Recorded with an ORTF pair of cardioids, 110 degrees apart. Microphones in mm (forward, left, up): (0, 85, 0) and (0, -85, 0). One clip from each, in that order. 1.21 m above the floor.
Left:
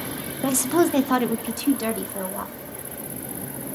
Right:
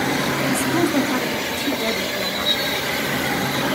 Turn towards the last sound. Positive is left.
turn(degrees=10)